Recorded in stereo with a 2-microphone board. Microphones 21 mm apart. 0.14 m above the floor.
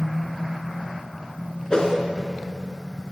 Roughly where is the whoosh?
Left.